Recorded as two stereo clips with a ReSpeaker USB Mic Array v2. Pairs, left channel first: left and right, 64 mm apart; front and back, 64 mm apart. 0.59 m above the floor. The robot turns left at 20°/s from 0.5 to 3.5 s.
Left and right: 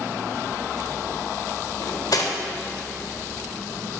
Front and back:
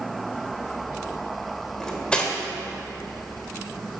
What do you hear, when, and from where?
1.8 s cutlery clinking: 80° left, 1.4 m; by 2.3 s 70° left, 1.4 m